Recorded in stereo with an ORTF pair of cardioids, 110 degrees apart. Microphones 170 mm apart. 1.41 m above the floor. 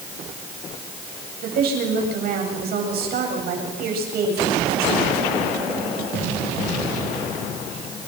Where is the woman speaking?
65° right, 9 m.